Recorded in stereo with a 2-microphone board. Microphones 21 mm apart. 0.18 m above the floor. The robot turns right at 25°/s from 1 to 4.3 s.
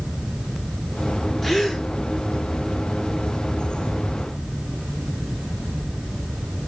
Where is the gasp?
20° left (ahead or behind), 1.2 m; by 1.8 s 30° left (ahead or behind), 1.2 m.